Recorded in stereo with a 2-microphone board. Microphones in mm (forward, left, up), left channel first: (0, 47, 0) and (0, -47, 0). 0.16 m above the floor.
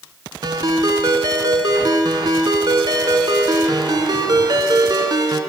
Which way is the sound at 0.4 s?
55° right (ahead or behind).